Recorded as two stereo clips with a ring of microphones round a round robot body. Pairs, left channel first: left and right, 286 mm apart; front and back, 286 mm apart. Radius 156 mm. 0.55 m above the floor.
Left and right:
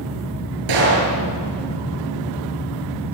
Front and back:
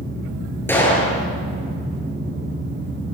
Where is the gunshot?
85° right, 9 m.